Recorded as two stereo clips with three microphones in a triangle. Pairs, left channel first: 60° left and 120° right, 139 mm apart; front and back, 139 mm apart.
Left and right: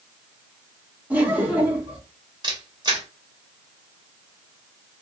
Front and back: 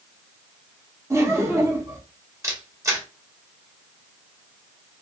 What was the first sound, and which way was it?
Laughter, 175° right.